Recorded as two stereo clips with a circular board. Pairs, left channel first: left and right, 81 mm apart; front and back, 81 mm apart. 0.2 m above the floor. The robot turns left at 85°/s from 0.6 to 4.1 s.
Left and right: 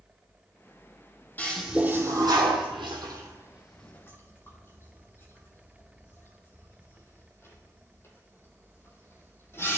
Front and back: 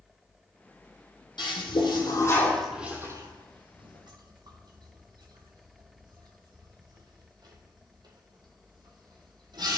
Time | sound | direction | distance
1.4 | a toilet flushing | 20° left | 1.3 m